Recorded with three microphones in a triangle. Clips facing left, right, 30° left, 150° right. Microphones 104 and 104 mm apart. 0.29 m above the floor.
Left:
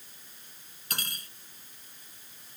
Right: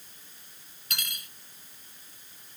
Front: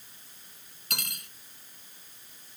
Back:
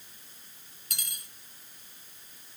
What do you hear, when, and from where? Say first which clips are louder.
0.9 s cutlery clinking: left 1 dB, front 8 dB; 40° left